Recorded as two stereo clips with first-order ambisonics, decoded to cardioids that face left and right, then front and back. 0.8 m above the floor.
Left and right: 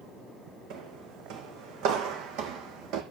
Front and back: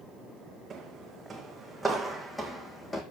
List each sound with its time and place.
0.7 s footsteps: 110° right, 2 m; by 3.0 s 75° right, 1.6 m